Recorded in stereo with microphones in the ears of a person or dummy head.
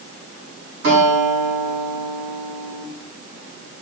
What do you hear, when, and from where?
0.8 s a guitar: 60° right (ahead or behind), 5.5 m